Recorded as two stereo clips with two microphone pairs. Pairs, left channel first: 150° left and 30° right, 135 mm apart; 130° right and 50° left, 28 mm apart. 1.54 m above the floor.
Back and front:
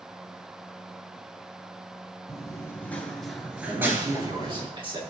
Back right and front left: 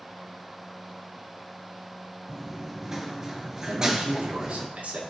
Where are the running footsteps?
130° left, 1.7 m; by 4.7 s 10° right, 1.8 m.